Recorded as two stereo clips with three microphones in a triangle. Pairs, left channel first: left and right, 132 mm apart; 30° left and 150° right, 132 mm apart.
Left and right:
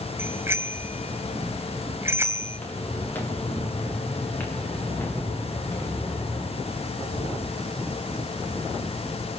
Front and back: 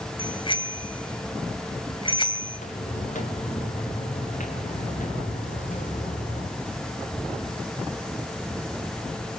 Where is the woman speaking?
I don't hear a woman speaking.